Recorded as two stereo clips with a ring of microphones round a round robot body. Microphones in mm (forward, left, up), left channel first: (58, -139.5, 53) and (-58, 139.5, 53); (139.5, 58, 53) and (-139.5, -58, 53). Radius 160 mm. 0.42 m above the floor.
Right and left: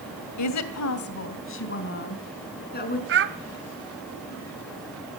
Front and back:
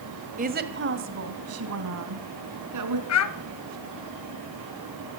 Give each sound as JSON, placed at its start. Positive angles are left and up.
{"t": 0.4, "sound": "a woman speaking", "azimuth_deg": -95, "distance_m": 2.0}
{"t": 3.1, "sound": "a child speaking", "azimuth_deg": 60, "distance_m": 1.3}